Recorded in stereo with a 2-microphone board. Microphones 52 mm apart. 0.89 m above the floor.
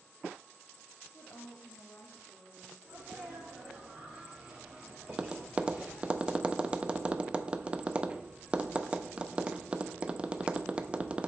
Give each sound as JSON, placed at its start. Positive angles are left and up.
{"t": 1.1, "sound": "a woman speaking", "side_deg": 50, "distance_m": 1.0}
{"t": 2.8, "sound": "a sneeze", "side_deg": -20, "distance_m": 2.5}
{"t": 5.1, "sound": "tapping", "side_deg": -20, "distance_m": 0.6}